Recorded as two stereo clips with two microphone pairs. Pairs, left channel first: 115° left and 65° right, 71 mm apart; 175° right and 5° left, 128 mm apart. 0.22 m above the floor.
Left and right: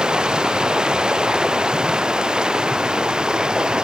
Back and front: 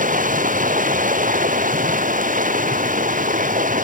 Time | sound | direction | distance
0.0 | running water | 15° left | ?